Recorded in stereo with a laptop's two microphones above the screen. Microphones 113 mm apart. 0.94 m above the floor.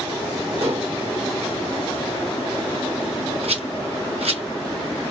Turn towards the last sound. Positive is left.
turn(degrees=-65)  # may be behind; listen again after turning